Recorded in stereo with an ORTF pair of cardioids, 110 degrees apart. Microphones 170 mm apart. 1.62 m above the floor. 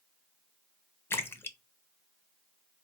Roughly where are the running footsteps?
No running footsteps in this recording.